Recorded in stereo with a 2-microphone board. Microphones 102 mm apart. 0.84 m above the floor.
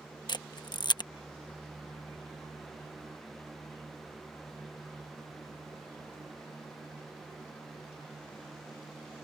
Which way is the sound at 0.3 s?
45° left (ahead or behind).